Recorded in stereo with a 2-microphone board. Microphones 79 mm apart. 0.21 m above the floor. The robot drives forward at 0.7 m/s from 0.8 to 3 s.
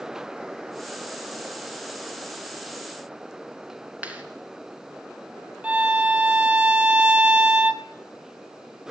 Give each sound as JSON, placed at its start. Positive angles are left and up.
{"t": 4.0, "sound": "a clap", "side_deg": -20, "distance_m": 2.5}
{"t": 5.6, "sound": "a violin", "side_deg": -15, "distance_m": 1.0}